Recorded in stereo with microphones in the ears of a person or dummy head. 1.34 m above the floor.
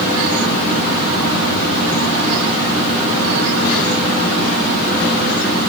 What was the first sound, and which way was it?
Only background noise.